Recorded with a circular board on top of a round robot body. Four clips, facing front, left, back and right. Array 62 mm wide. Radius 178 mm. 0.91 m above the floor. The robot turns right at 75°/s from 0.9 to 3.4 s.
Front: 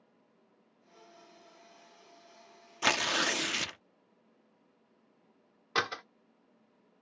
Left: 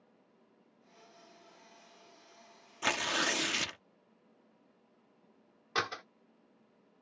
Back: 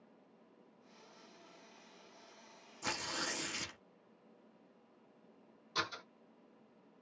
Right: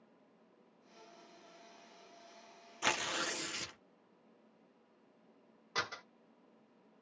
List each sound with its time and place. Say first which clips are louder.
2.8 s tearing paper: left 4 dB, front 11 dB; straight ahead, 0.7 m; by 3.8 s 40° left, 0.7 m
5.8 s a door slam: left 5 dB, front 8 dB; 20° left, 1.0 m